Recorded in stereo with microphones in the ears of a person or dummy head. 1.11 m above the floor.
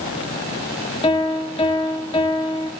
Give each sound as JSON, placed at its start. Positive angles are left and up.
{"t": 1.0, "sound": "a piano", "side_deg": 30, "distance_m": 1.5}